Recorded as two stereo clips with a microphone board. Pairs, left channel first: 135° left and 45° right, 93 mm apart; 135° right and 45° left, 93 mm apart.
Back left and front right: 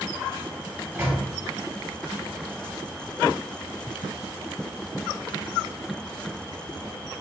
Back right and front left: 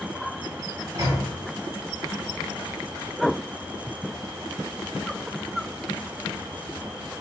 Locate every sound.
0.9 s a microwave: 10° left, 1.9 m